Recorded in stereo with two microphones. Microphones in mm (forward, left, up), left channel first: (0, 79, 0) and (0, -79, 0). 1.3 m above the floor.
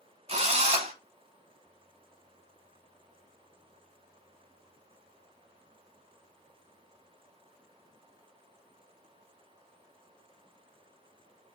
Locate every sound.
0.3 s a drill: 40° right (ahead or behind), 0.7 m